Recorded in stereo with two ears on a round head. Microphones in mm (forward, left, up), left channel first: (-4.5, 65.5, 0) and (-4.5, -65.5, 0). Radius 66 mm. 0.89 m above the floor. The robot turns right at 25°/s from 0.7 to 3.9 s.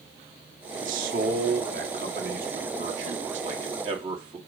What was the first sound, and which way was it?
A man speaking, 115° right.